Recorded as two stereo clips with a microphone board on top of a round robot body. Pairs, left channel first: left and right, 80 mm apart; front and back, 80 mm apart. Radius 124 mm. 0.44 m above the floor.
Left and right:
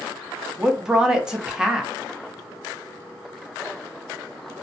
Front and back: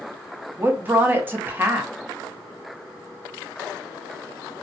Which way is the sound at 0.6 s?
160° right.